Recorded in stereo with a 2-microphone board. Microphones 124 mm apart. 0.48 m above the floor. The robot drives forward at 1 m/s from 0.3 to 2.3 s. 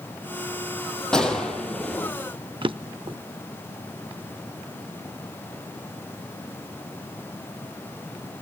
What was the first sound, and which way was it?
A gunshot, 5° left (ahead or behind).